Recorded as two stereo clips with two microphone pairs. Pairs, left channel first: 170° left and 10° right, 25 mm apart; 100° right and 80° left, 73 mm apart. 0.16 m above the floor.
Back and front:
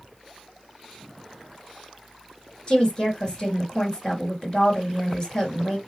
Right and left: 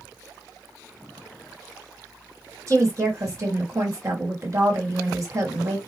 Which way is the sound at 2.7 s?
115° left.